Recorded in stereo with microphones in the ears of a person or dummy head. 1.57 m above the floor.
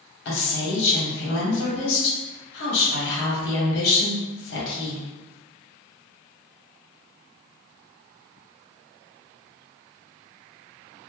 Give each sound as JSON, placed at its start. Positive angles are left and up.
{"t": 0.2, "sound": "a woman speaking", "side_deg": 65, "distance_m": 1.2}